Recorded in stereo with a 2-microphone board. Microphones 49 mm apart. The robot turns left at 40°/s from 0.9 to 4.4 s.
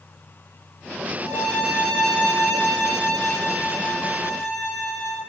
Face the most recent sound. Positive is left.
turn(degrees=120)